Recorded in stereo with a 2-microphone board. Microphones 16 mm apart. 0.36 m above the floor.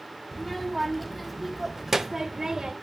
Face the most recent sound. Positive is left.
turn(degrees=-40)  # may be behind; listen again after turning